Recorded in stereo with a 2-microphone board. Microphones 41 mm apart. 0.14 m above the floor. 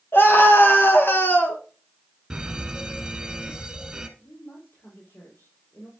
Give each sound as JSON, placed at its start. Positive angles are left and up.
{"t": 0.1, "sound": "a scream", "side_deg": 65, "distance_m": 4.5}
{"t": 2.3, "sound": "an alarm", "side_deg": -15, "distance_m": 1.9}
{"t": 4.2, "sound": "a woman speaking", "side_deg": 65, "distance_m": 5.5}